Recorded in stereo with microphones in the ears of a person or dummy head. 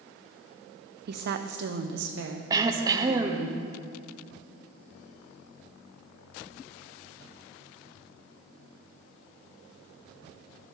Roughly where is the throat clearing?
Right.